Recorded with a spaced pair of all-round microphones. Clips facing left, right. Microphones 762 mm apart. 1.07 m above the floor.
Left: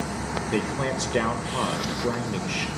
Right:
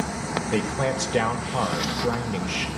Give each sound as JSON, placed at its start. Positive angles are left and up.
{"t": 0.5, "sound": "a man speaking", "side_deg": -30, "distance_m": 0.6}